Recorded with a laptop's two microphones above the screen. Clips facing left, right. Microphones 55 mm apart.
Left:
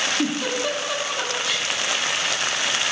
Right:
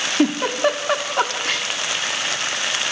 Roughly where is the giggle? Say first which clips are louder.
Right 6 dB; right.